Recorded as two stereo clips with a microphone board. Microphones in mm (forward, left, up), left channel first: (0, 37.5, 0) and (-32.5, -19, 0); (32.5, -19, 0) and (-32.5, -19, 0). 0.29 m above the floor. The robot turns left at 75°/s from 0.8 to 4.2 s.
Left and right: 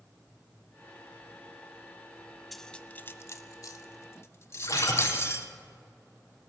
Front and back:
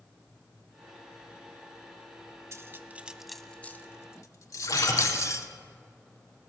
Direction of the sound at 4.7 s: 25° left.